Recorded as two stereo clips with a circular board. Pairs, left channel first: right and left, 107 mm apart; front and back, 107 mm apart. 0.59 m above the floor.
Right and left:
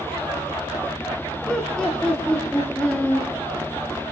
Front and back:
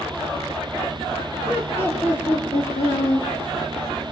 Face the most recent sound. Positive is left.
turn(degrees=-20)